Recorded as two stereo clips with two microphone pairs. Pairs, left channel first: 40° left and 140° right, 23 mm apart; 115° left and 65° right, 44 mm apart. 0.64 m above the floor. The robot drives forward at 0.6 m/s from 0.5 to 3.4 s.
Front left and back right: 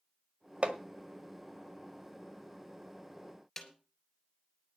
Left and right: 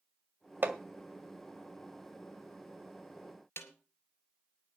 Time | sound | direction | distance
0.6 | hammering | 115° right | 1.7 m
3.6 | a snare drum | 120° left | 3 m